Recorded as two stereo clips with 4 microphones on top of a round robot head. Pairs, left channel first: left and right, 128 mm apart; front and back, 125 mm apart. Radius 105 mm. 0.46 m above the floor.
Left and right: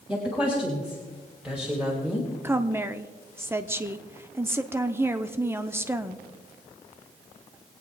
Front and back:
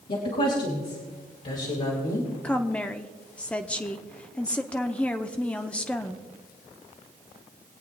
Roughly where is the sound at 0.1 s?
Ahead.